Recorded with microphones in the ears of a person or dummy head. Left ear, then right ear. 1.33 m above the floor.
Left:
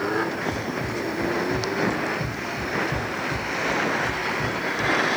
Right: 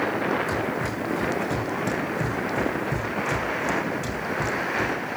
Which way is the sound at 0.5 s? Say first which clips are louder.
Right 1 dB; 75° right (ahead or behind).